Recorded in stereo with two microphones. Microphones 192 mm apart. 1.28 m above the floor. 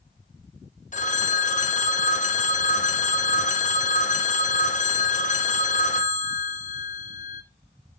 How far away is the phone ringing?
About 0.7 m.